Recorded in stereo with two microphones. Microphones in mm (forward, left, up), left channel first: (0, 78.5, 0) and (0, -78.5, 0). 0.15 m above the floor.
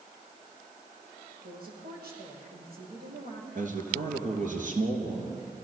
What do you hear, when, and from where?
1.4 s a woman speaking: 75° right (ahead or behind), 6.5 m
3.5 s a man speaking: 60° right (ahead or behind), 3.5 m